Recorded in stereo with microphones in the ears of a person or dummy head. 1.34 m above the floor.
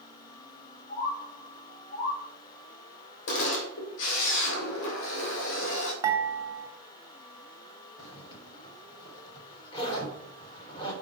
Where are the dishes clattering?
15° right (ahead or behind), 2 m.